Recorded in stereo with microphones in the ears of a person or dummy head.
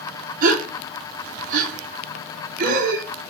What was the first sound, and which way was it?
A gasp, 50° right (ahead or behind).